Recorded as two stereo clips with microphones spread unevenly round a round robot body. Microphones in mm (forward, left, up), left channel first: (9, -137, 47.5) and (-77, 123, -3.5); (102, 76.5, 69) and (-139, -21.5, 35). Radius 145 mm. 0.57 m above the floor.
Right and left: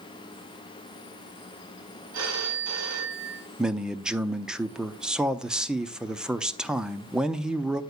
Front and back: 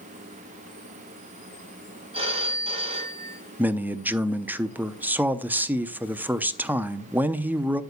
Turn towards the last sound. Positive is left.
turn(degrees=155)